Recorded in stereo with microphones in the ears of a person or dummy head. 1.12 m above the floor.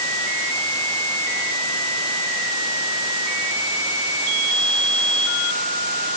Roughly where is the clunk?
No clunk in this recording.